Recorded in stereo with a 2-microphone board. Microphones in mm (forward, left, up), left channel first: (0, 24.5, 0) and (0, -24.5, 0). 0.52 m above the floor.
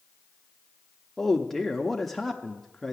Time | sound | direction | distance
1.2 | a man speaking | 5° left (ahead or behind) | 0.7 m